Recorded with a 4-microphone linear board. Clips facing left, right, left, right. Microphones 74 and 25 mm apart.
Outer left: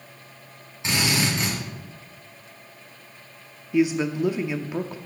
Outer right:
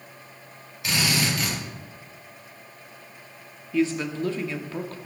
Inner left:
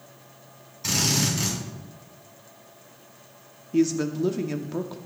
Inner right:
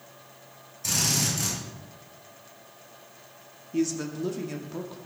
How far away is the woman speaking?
About 0.8 m.